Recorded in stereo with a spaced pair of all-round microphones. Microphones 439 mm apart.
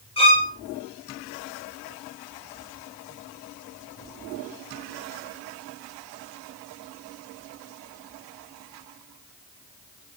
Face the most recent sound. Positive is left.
turn(degrees=10)  # may be behind; listen again after turning